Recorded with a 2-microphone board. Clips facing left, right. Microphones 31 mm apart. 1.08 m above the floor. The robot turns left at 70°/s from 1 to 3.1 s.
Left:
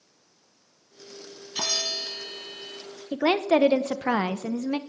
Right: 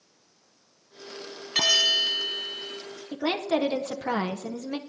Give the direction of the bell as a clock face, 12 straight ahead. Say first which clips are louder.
Right 8 dB; 3 o'clock.